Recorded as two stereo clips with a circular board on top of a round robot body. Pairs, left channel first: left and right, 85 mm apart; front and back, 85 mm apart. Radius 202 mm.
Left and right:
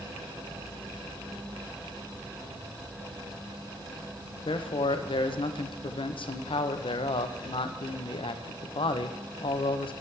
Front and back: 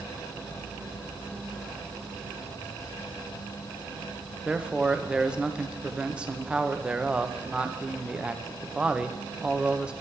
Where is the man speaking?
100° left, 0.7 m.